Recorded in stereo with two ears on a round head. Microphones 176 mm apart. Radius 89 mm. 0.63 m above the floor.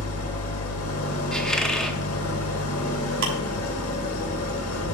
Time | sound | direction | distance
0.0 | an engine running | 75° left (ahead or behind) | 1.0 m
1.3 | a squeak | 5° left (ahead or behind) | 0.5 m
3.2 | ticking | 70° right (ahead or behind) | 3 m